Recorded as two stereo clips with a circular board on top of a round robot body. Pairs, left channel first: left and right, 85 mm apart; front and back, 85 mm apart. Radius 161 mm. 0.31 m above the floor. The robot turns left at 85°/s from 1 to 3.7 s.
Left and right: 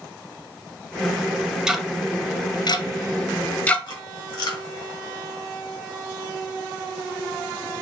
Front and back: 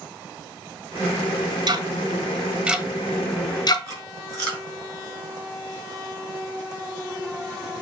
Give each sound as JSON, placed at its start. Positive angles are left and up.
{"t": 1.7, "sound": "ticking", "azimuth_deg": -170, "distance_m": 1.1}
{"t": 3.9, "sound": "chewing", "azimuth_deg": 130, "distance_m": 3.0}